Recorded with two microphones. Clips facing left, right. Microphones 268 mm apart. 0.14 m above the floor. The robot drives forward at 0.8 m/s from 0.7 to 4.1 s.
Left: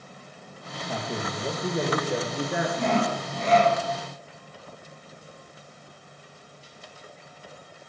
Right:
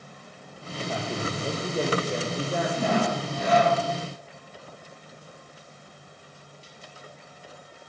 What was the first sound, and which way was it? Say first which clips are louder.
A man speaking: right 1 dB; 5° left (ahead or behind).